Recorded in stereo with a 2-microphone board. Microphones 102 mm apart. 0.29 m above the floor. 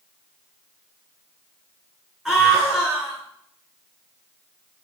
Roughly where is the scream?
Centre.